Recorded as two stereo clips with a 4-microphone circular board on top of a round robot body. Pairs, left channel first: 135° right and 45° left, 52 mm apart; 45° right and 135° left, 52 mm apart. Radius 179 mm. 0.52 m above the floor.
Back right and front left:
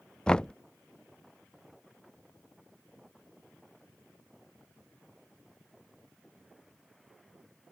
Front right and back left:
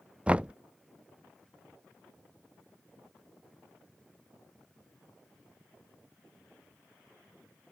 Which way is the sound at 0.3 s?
170° left.